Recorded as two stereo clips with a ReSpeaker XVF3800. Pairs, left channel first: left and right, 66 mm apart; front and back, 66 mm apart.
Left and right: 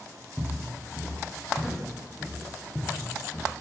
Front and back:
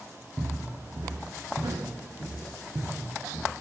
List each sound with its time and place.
0.4 s footsteps: 160° right, 1.5 m; by 3.5 s 145° left, 2 m